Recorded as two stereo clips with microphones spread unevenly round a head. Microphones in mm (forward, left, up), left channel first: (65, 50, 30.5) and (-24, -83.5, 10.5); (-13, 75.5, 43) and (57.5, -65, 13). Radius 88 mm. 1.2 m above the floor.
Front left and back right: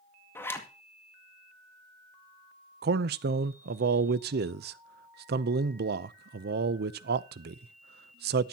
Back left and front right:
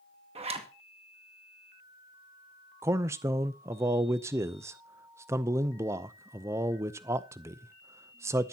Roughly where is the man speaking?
Behind right.